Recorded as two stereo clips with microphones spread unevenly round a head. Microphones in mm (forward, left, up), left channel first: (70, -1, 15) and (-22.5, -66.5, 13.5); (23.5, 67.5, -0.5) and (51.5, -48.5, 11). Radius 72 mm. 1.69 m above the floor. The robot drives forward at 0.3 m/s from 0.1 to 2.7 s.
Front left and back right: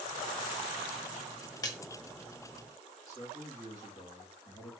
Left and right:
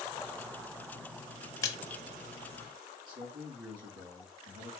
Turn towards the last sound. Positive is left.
turn(degrees=-25)